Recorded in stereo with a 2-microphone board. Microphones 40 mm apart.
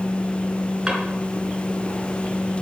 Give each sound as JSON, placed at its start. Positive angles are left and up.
{"t": 0.9, "sound": "a drawer", "side_deg": -15, "distance_m": 2.5}